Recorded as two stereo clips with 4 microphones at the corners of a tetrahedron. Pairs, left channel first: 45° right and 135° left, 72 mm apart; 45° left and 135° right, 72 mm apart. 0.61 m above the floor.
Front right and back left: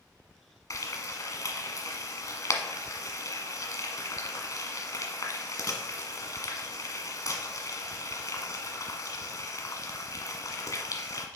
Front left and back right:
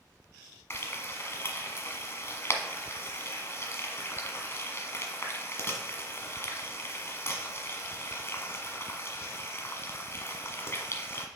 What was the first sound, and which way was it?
Frying, 10° right.